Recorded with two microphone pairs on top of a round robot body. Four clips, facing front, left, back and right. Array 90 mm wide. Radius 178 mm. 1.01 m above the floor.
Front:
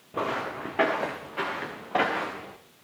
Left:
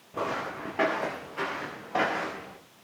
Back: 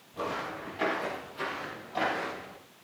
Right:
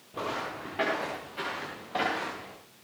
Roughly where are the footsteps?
Ahead.